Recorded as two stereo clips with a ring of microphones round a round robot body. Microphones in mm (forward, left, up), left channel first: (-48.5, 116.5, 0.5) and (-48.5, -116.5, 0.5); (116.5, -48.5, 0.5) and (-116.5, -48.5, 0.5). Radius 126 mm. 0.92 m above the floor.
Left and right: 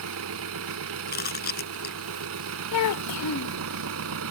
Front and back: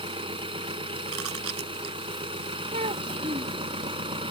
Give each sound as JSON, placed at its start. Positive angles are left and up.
{"t": 0.0, "sound": "an engine running", "azimuth_deg": -110}
{"t": 1.1, "sound": "chewing", "azimuth_deg": 140}
{"t": 2.7, "sound": "a child speaking", "azimuth_deg": 110}